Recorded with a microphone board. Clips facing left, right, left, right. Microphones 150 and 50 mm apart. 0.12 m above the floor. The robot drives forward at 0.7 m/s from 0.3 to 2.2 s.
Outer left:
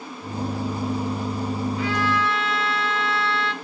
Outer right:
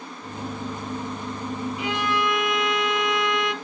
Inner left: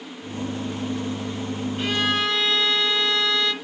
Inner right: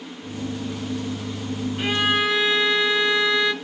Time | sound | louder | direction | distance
1.8 | a violin | even, inner right 2 dB | 15° right (ahead or behind) | 0.9 m